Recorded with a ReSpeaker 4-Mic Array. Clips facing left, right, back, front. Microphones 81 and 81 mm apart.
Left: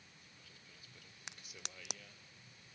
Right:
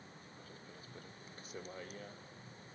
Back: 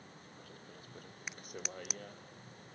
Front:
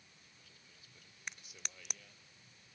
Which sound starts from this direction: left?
A crack, at 1.3 s.